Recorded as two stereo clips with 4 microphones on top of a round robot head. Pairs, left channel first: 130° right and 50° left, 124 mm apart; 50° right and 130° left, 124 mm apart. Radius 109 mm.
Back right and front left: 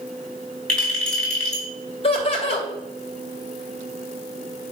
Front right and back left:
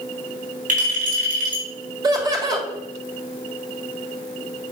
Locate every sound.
0.7 s a clink: 145° left, 4.5 m
2.0 s laughter: 170° right, 2.5 m